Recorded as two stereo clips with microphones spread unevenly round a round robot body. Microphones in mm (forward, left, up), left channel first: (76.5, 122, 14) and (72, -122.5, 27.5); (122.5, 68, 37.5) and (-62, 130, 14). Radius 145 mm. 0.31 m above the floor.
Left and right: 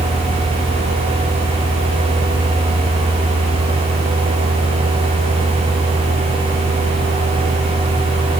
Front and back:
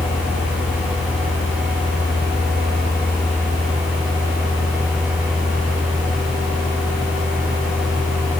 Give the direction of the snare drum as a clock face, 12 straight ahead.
No snare drum in this recording.